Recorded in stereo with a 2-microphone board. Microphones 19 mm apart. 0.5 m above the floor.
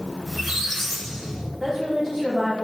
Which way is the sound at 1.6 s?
15° left (ahead or behind).